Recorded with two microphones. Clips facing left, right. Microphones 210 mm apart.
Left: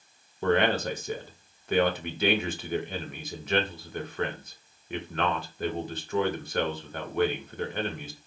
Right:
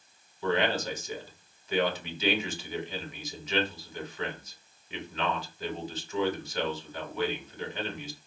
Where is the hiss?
No hiss in this recording.